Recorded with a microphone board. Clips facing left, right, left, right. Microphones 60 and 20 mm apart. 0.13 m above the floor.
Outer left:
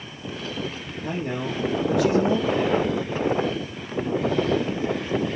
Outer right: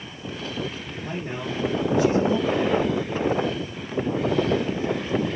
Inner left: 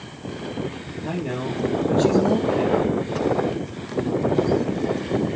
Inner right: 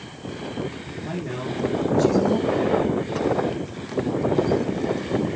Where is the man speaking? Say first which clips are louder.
Outer left 3 dB, inner left 3 dB; 70° left (ahead or behind), 4 m.